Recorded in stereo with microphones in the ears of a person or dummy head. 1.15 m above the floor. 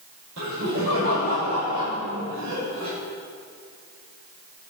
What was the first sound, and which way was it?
Laughter, 75° right (ahead or behind).